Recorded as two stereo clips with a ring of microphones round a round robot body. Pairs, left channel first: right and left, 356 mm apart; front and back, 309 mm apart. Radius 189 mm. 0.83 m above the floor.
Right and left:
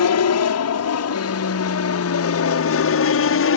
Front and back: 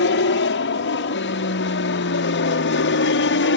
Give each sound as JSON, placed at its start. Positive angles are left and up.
{"t": 0.0, "sound": "an aircraft", "azimuth_deg": -50}